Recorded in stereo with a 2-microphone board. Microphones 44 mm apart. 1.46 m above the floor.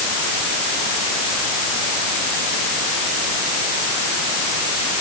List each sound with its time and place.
Only background noise.